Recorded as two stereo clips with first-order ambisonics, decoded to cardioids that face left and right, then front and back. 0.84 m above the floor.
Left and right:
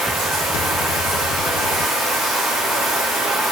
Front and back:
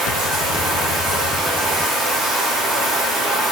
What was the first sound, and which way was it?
Running water, 165° right.